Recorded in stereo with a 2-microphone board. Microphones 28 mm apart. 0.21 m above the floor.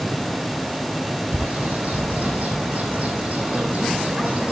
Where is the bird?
55° right (ahead or behind), 3.5 m.